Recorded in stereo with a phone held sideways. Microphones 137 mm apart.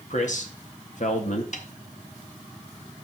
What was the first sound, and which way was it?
A man speaking, 60° left (ahead or behind).